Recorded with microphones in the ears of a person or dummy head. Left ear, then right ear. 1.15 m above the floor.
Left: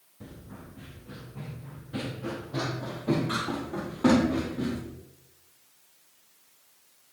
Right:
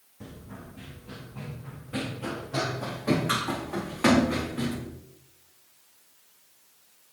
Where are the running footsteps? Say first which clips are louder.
Right 2 dB; 20° right (ahead or behind), 3.5 m; by 4.8 s 70° right (ahead or behind), 4.5 m.